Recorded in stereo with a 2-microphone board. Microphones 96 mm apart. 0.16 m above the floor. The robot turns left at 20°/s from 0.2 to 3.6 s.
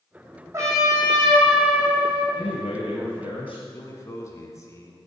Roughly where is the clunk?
I don't hear a clunk.